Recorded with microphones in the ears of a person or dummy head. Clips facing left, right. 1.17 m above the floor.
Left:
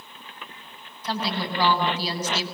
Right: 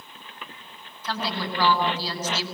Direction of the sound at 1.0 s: 15° left (ahead or behind).